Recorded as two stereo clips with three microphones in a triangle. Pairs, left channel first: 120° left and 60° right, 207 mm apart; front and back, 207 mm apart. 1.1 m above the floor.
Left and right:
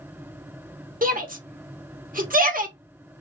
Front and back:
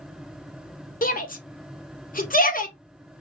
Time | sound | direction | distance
1.0 | a shout | 30° right | 1.0 m